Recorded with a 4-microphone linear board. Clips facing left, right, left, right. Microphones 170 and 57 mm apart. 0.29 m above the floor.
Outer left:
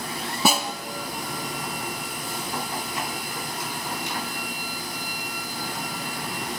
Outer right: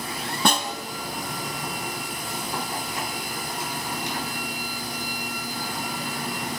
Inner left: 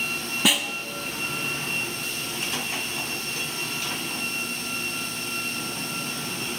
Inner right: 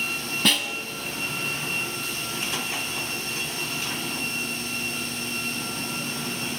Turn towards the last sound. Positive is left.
turn(degrees=5)  # may be behind; listen again after turning